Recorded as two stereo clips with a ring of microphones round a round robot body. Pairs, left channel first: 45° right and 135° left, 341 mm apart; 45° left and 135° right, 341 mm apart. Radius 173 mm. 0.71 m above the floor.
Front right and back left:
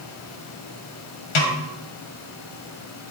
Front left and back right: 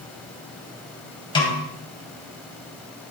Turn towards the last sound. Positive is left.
turn(degrees=-30)